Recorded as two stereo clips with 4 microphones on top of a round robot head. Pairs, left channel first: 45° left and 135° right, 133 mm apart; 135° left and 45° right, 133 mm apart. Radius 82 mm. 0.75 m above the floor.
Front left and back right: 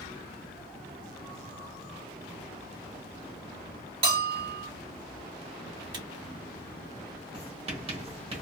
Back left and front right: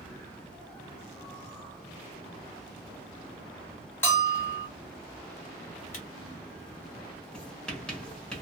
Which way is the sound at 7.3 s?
145° right.